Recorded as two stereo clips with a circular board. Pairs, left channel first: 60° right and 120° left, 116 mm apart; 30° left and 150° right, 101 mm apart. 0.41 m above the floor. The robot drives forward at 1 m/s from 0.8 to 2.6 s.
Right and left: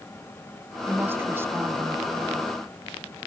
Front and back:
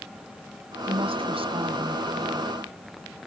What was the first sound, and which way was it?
A woman speaking, 170° right.